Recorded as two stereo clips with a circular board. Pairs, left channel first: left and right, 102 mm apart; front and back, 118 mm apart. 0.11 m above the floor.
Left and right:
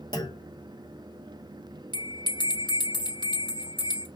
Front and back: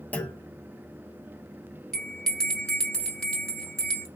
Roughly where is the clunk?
Left.